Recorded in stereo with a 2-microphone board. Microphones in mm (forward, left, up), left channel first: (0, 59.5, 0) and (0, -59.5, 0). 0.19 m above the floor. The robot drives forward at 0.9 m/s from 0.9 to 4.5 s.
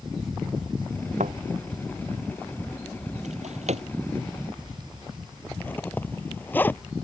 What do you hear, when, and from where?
1.2 s a thud: 85° right
3.2 s a drawer: 80° right; by 3.9 s 65° right (ahead or behind)
5.5 s a zipper: 15° left (ahead or behind)